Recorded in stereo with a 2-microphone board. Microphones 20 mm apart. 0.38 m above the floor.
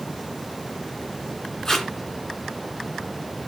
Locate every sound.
1.6 s tape being pulled: 25° left (ahead or behind), 2.5 m